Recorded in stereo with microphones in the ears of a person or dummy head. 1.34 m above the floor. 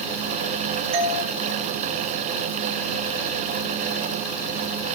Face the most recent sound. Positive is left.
turn(degrees=-30)  # may be behind; listen again after turning